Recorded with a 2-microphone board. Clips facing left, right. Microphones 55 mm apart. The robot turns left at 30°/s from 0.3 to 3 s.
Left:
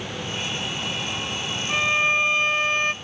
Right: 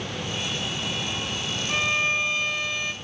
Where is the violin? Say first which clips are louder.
Left 3 dB; 165° left, 0.5 m; by 2.9 s 130° left, 0.5 m.